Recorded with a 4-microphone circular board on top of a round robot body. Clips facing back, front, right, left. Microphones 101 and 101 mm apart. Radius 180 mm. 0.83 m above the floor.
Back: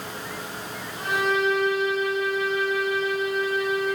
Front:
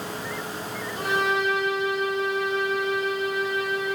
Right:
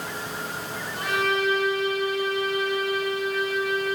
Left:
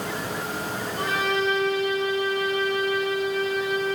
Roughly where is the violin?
Ahead left.